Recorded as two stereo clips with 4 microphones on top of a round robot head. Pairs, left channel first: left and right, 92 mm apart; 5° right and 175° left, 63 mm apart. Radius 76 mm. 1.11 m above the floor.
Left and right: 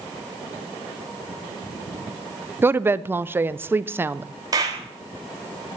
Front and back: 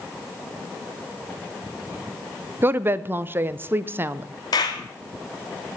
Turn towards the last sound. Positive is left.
turn(degrees=-35)